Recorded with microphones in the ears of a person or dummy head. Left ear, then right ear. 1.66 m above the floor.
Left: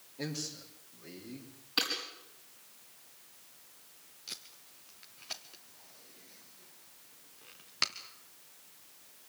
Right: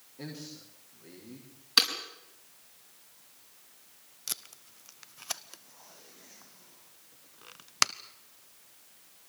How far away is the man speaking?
About 5.5 m.